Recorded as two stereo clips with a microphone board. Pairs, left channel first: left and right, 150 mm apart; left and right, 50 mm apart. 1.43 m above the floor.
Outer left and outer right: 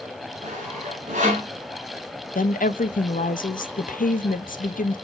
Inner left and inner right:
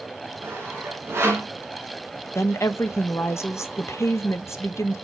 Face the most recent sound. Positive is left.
turn(degrees=65)  # may be behind; listen again after turning